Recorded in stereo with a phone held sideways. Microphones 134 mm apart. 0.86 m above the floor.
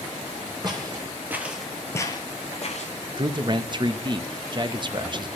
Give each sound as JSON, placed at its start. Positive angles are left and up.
{"t": 0.6, "sound": "footsteps", "side_deg": -35, "distance_m": 1.7}
{"t": 3.2, "sound": "a man speaking", "side_deg": -35, "distance_m": 0.6}